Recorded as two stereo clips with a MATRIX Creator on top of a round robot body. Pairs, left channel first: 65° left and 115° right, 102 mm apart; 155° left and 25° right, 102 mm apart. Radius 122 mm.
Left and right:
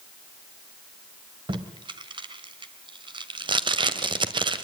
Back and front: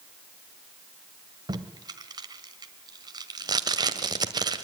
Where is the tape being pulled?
70° right, 1.6 m.